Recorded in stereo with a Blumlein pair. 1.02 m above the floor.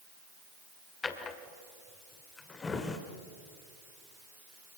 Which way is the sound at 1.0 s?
15° left.